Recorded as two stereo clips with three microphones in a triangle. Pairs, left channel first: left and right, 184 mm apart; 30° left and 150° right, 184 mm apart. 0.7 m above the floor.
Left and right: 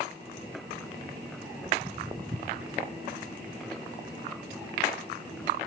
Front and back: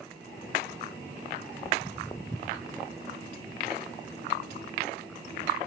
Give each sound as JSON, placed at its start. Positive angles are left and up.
{"t": 1.6, "sound": "footsteps", "azimuth_deg": -25, "distance_m": 0.7}